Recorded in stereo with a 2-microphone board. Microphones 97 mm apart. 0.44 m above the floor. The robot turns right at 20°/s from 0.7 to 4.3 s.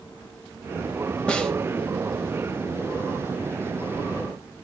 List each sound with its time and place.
1.3 s a snare drum: 10° left (ahead or behind), 1.7 m; by 1.5 s 5° left (ahead or behind), 1.7 m